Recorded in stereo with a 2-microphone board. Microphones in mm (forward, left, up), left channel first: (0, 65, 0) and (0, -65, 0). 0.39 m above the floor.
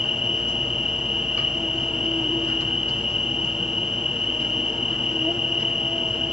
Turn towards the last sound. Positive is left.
turn(degrees=-5)  # may be behind; listen again after turning